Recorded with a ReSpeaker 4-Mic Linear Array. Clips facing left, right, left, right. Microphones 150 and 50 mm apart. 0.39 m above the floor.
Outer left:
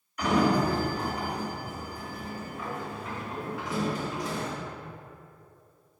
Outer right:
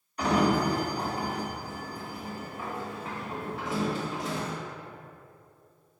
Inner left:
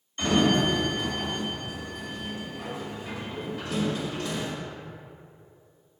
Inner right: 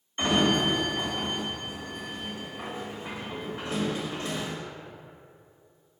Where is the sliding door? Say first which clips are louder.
Outer left 1 dB, inner left 1 dB; 30° right (ahead or behind), 2 m.